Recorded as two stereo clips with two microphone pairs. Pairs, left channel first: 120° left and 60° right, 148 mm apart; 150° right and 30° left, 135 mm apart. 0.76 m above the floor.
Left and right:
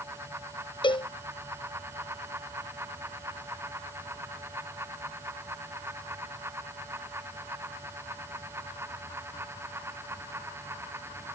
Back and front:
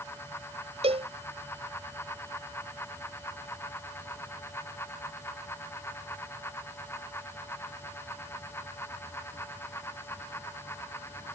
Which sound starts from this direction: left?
A cowbell, at 0.8 s.